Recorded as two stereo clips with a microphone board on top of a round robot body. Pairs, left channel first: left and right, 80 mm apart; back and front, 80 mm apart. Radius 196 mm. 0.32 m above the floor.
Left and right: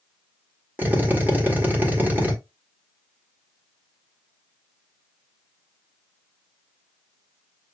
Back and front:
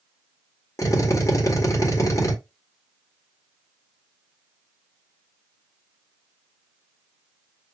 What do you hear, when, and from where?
0.8 s a drill: 150° right, 2.0 m